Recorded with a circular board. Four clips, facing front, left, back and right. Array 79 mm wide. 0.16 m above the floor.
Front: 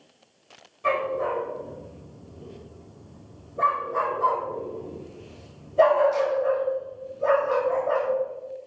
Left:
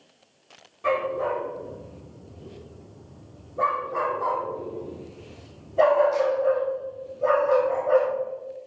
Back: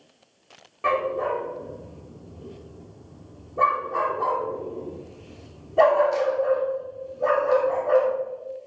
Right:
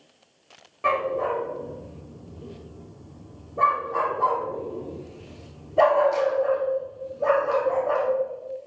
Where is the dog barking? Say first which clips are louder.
Right 1 dB, back 1 dB; 140° right, 3 m.